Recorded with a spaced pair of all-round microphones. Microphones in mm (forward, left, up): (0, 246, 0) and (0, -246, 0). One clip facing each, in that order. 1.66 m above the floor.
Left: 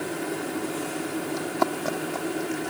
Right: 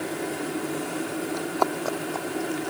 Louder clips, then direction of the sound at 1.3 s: Even; 35° left (ahead or behind).